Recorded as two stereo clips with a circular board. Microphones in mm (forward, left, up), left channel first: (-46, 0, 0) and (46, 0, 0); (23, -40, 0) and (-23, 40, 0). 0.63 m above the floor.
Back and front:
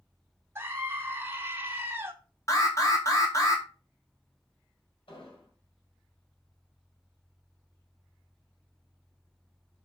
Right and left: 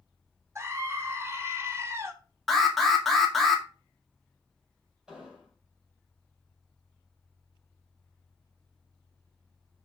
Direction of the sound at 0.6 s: 60° left.